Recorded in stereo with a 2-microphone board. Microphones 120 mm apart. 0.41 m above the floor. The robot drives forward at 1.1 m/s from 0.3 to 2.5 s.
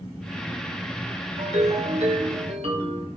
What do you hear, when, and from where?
1.4 s a ringtone: 80° right, 4 m; by 3.1 s 65° right (ahead or behind), 4.5 m